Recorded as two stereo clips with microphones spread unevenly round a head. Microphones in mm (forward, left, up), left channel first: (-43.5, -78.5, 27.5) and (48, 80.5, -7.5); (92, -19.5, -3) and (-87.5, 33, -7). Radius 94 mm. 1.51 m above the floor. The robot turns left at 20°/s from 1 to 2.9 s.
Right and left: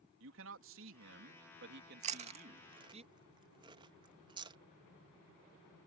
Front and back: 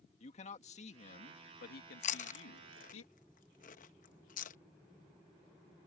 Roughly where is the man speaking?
Ahead left.